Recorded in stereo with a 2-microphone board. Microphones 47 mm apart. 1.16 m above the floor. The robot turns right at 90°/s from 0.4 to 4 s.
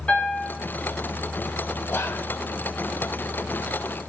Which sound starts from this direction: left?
A piano, at 0.1 s.